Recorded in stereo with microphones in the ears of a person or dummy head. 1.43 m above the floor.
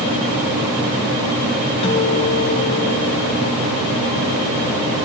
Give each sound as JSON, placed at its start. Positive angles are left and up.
{"t": 1.8, "sound": "a guitar", "side_deg": 35, "distance_m": 2.5}